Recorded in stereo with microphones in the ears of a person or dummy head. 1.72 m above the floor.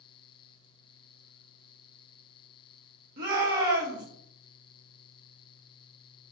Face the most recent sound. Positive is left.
turn(degrees=-55)  # may be behind; listen again after turning